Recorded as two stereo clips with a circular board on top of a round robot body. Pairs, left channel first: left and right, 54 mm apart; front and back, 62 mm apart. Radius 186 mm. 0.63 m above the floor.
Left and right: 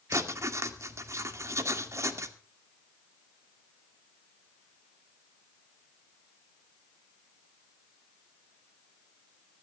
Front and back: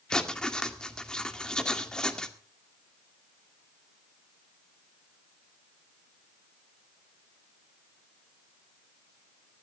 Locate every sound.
0.1 s writing: 75° right, 1.9 m